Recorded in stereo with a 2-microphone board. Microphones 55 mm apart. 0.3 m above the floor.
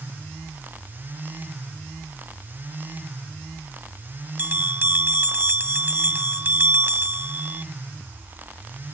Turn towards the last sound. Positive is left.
turn(degrees=-35)  # may be behind; listen again after turning